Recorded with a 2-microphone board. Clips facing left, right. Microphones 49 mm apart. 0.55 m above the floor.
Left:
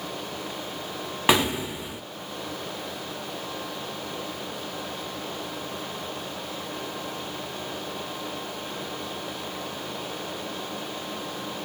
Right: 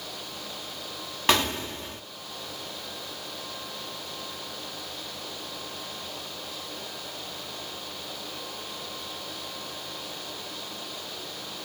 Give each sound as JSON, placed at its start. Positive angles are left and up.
{"t": 1.3, "sound": "an explosion", "side_deg": 10, "distance_m": 0.5}